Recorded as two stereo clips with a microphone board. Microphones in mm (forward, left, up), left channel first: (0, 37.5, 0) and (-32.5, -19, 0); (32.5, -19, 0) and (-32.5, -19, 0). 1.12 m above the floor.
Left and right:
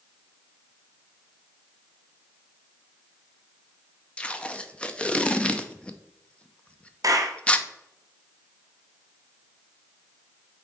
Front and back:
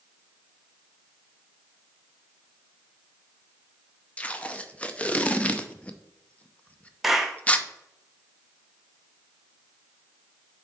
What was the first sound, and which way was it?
Tape being pulled, 20° left.